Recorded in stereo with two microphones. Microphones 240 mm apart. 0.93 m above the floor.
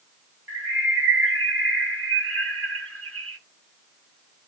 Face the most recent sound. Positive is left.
turn(degrees=-65)  # may be behind; listen again after turning